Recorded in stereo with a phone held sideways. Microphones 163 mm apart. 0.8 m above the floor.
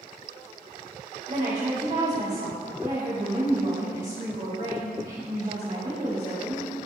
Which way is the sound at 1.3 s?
55° right (ahead or behind).